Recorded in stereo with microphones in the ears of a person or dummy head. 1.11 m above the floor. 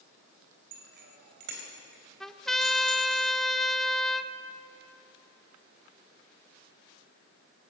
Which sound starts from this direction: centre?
A trumpet, at 2.2 s.